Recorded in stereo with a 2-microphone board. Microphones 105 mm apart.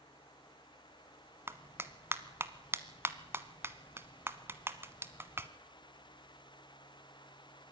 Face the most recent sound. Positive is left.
turn(degrees=-25)  # may be behind; listen again after turning